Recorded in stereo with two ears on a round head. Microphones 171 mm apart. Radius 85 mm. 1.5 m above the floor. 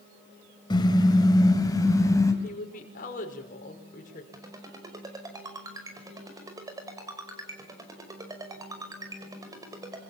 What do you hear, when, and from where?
0.7 s a car horn: 25° left (ahead or behind), 3 m; by 2.3 s 20° left (ahead or behind), 4 m
2.4 s a woman speaking: 45° left (ahead or behind), 5.5 m
4.3 s a ringtone: 20° right (ahead or behind), 5.5 m